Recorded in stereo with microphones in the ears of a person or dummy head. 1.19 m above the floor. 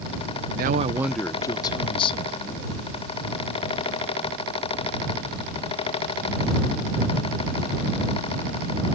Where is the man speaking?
40° right (ahead or behind); by 2.8 s 30° left (ahead or behind).